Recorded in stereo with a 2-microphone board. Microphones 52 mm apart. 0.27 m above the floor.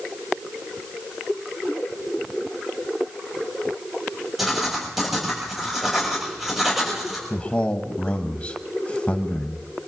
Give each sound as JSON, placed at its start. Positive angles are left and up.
{"t": 4.4, "sound": "writing", "side_deg": -5, "distance_m": 6.5}
{"t": 7.3, "sound": "a man speaking", "side_deg": 25, "distance_m": 1.4}